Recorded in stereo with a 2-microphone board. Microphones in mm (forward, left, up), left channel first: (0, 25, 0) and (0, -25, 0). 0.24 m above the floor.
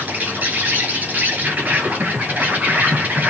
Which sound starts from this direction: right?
An insect, at 0.0 s.